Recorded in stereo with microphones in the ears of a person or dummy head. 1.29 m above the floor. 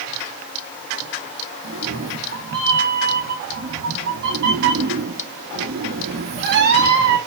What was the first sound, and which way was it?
A cat meowing, 60° right (ahead or behind).